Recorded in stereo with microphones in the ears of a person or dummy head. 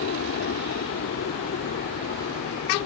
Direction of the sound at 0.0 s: 65° left (ahead or behind).